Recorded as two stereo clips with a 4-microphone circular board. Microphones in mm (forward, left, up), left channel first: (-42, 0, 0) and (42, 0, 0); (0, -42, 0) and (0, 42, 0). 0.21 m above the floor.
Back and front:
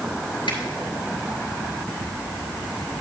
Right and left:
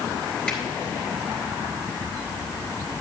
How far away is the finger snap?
About 2.5 m.